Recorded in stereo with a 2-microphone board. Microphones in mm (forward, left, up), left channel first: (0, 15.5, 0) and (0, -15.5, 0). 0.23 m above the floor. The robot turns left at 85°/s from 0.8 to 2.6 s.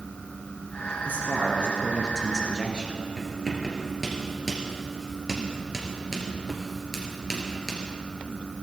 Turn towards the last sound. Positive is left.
turn(degrees=-5)  # may be behind; listen again after turning